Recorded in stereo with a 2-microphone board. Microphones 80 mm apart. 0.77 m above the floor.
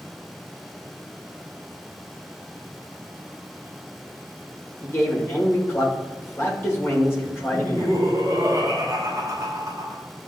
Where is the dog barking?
I don't hear a dog barking.